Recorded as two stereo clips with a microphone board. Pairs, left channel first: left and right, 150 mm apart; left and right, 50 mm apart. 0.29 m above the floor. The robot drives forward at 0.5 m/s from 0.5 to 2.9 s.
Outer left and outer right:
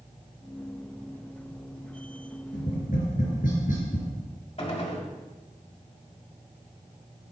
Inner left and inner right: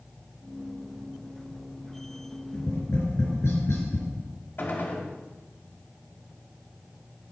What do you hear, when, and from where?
2.5 s tapping: 75° left (ahead or behind), 4 m
4.6 s a gunshot: 50° left (ahead or behind), 1.4 m